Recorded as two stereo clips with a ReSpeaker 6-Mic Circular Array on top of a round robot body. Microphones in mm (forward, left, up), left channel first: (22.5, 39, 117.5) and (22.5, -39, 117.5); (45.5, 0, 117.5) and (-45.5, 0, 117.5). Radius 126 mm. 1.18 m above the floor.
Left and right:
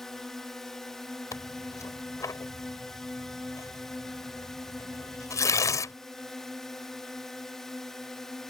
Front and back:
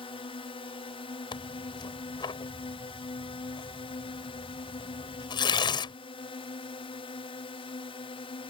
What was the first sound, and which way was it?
A drone, 5° left.